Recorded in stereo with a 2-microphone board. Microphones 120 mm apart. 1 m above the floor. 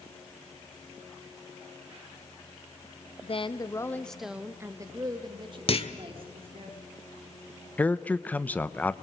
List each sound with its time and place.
3.2 s a woman speaking: 50° left (ahead or behind), 1.3 m; by 6.7 s 50° right (ahead or behind), 3.5 m
5.7 s a clunk: 50° left (ahead or behind), 1.5 m
7.8 s a man speaking: 15° left (ahead or behind), 0.8 m